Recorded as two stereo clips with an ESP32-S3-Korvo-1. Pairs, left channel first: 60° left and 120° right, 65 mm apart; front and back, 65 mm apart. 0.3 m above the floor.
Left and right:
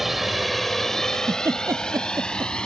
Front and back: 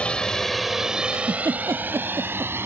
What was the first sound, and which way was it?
A drone, 40° right.